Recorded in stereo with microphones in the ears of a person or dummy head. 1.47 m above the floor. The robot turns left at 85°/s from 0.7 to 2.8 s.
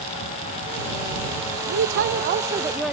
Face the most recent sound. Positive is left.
turn(degrees=180)